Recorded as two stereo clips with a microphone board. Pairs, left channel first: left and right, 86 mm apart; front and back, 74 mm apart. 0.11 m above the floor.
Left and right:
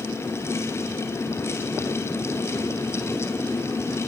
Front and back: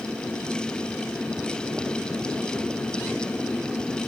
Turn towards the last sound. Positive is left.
No sound to turn to.